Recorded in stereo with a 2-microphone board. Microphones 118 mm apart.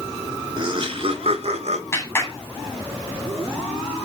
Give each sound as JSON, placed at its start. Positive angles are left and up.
{"t": 0.6, "sound": "laughter", "side_deg": -40, "distance_m": 2.5}
{"t": 1.9, "sound": "a clap", "side_deg": 20, "distance_m": 7.0}